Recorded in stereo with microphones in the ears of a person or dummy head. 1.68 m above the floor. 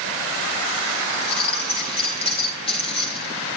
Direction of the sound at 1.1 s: 35° left (ahead or behind).